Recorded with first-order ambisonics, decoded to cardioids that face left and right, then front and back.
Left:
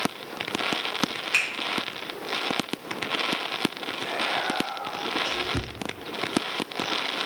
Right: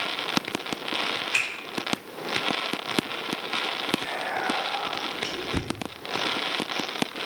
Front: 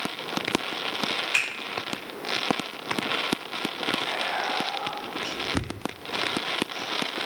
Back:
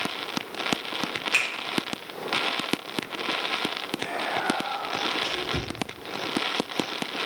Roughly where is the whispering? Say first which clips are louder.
Left 2 dB, front 1 dB; behind right.